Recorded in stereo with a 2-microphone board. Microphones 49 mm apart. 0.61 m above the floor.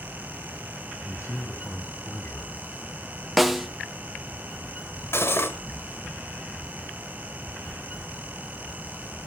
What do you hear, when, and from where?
1.0 s a man speaking: 70° left (ahead or behind), 3.5 m; by 3.3 s 15° left (ahead or behind), 1.5 m
3.4 s a snare drum: centre (ahead or behind), 1.1 m
5.1 s cutlery clinking: 60° left (ahead or behind), 1.3 m